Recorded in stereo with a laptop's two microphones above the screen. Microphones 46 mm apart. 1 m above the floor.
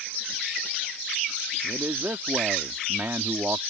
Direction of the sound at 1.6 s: 65° right (ahead or behind).